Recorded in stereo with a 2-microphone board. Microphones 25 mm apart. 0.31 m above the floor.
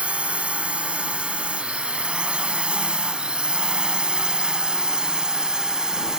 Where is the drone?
55° right (ahead or behind); by 6.2 s 30° right (ahead or behind).